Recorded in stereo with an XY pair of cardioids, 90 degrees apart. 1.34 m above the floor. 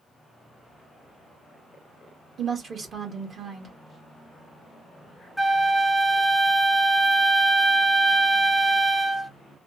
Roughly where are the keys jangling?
No keys jangling in this recording.